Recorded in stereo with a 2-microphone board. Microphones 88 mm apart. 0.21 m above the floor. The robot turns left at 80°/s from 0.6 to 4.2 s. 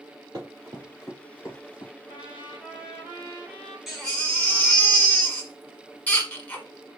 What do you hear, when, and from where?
0.3 s running footsteps: 40° right (ahead or behind), 1.7 m; by 1.9 s 70° left (ahead or behind), 3 m
2.1 s a trumpet: 95° left, 2 m; by 3.8 s 35° right, 2 m
3.9 s a baby crying: 5° right (ahead or behind), 1.1 m; by 6.7 s 15° left (ahead or behind), 1.1 m